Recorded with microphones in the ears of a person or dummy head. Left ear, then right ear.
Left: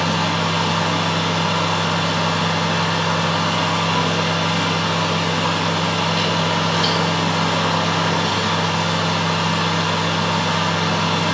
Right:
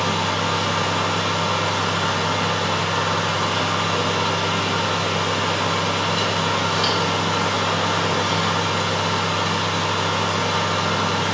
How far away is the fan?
About 1.8 m.